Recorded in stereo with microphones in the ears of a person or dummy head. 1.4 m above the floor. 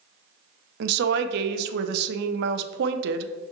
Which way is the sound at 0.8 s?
65° right (ahead or behind).